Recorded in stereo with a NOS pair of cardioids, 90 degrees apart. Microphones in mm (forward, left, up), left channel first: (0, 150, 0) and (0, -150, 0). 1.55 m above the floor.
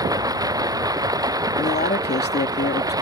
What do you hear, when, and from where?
0.0 s running water: 10° right
1.6 s a man speaking: 35° left